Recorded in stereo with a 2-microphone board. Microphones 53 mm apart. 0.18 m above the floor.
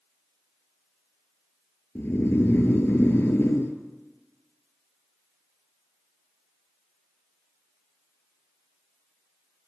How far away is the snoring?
About 0.9 m.